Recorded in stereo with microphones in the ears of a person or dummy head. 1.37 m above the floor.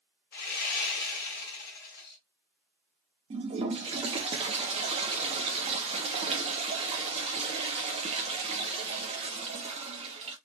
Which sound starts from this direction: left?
Sawing, at 0.3 s.